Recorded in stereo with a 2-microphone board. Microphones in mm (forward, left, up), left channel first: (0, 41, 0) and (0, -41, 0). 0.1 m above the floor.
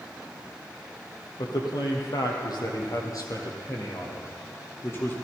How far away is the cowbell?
I don't hear a cowbell.